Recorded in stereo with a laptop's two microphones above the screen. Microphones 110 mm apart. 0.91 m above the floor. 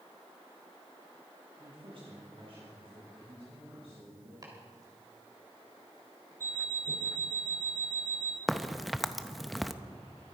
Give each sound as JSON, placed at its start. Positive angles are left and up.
{"t": 1.6, "sound": "a woman speaking", "side_deg": -50, "distance_m": 1.7}
{"t": 4.4, "sound": "chopping", "side_deg": -35, "distance_m": 3.5}
{"t": 6.4, "sound": "an alarm clock", "side_deg": -25, "distance_m": 1.9}
{"t": 8.5, "sound": "a crack", "side_deg": 0, "distance_m": 0.6}